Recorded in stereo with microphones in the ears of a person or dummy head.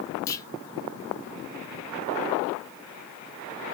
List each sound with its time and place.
0.3 s a clunk: 15° left (ahead or behind), 0.6 m